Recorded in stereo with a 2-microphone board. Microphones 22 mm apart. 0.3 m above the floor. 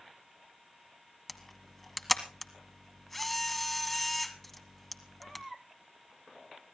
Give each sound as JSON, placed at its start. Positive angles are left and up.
{"t": 1.3, "sound": "a camera shutter", "side_deg": 5, "distance_m": 1.4}